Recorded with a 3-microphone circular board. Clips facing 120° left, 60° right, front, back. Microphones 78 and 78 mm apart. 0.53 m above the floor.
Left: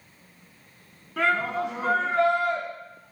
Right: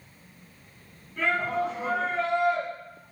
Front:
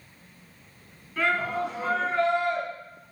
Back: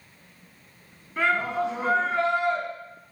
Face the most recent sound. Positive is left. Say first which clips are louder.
# left 2 dB, back 2 dB
turn(degrees=110)